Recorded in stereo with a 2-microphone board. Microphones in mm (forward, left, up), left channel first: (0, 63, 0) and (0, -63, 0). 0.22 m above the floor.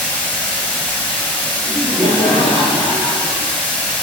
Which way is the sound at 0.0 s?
10° left (ahead or behind).